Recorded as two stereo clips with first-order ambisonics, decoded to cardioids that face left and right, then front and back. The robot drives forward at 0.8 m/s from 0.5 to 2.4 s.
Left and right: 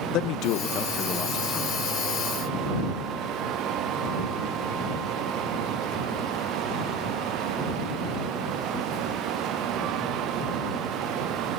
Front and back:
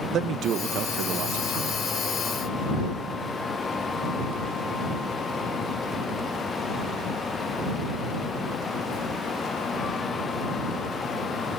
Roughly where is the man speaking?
Behind left.